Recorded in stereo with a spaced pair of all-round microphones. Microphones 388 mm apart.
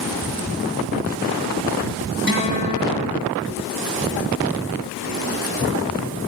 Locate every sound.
2.3 s a guitar: 30° right (ahead or behind), 7.5 m